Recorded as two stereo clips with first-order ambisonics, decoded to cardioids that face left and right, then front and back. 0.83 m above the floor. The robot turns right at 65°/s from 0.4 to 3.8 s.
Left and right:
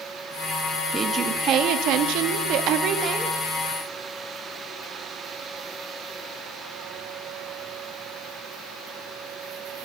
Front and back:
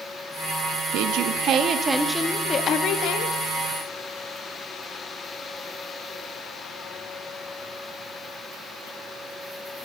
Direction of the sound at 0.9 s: 170° right.